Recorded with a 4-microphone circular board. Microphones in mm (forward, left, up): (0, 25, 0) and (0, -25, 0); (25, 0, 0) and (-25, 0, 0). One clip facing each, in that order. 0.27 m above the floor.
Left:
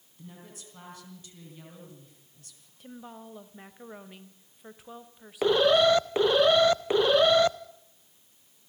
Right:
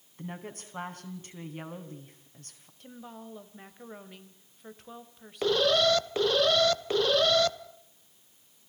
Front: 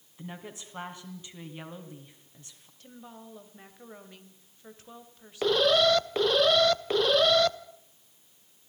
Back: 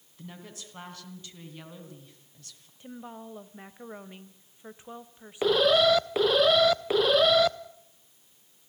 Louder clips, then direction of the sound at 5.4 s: Left 3 dB, back 1 dB; 105° left.